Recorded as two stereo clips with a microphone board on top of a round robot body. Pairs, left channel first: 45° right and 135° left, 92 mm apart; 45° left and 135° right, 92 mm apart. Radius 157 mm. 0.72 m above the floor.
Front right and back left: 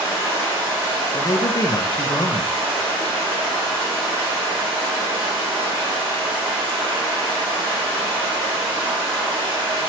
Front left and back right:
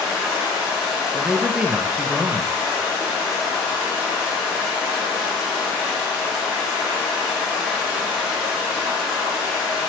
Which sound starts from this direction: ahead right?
A man speaking, at 1.1 s.